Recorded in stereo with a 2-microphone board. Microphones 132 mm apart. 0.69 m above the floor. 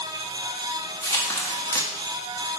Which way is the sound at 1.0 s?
20° left (ahead or behind).